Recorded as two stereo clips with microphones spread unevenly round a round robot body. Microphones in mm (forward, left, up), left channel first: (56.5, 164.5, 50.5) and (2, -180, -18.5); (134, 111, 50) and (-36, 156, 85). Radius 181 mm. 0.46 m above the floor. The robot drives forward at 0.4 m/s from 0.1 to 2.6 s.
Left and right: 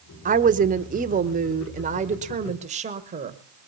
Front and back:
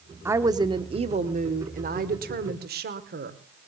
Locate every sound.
0.2 s a woman speaking: 110° right, 0.8 m; by 3.4 s 160° right, 1.3 m